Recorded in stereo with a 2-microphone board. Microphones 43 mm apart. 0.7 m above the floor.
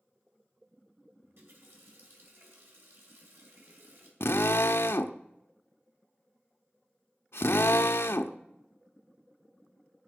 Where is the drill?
80° left, 0.6 m.